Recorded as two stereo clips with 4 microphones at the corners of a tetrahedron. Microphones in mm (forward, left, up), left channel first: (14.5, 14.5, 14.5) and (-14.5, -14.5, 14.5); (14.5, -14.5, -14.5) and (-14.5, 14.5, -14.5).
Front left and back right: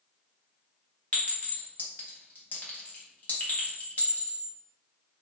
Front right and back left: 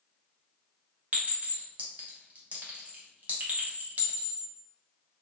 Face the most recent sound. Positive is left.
turn(degrees=90)